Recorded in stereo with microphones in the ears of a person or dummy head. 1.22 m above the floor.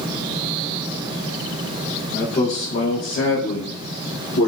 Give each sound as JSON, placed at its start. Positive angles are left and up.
{"t": 2.1, "sound": "a man speaking", "side_deg": 25, "distance_m": 0.7}